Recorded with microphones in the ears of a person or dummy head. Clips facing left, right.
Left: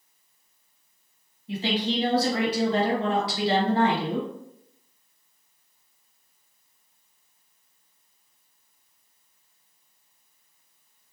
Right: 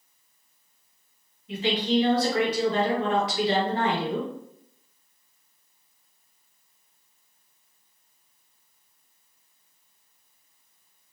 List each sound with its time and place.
1.5 s a woman speaking: 35° left (ahead or behind), 1.3 m